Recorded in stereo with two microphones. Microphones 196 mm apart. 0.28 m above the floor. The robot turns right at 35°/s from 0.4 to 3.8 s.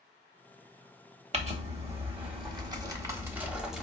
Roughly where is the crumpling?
Right.